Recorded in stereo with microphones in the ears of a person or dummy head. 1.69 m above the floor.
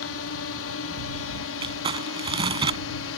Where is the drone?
70° left (ahead or behind).